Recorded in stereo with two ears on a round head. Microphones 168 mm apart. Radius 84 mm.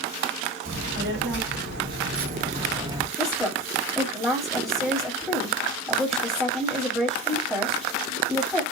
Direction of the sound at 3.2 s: 5° right (ahead or behind).